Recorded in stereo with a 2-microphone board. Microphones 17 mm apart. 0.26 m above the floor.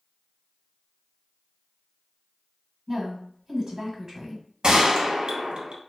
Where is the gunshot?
65° right (ahead or behind), 0.7 m.